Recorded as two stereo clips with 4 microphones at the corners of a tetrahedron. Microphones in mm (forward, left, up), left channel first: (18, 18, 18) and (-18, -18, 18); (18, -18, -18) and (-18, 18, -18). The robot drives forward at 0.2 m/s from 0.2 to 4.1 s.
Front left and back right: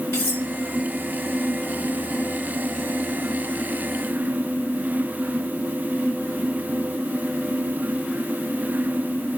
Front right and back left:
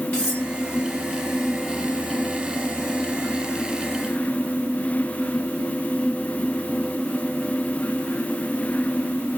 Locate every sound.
0.1 s cutlery clinking: 20° left, 1.5 m